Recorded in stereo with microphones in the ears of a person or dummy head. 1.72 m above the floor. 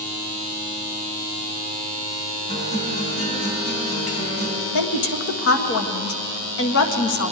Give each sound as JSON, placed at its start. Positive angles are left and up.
{"t": 2.5, "sound": "a guitar", "side_deg": 40, "distance_m": 5.0}
{"t": 4.7, "sound": "a woman speaking", "side_deg": 75, "distance_m": 1.5}